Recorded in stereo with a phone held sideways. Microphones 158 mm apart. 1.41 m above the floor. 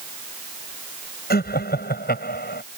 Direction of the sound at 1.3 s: 85° left.